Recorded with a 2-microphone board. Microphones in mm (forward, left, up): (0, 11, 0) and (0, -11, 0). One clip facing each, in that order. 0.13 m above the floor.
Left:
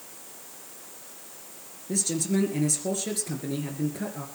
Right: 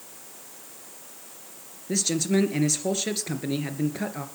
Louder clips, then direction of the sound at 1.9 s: Right 3 dB; 40° right (ahead or behind).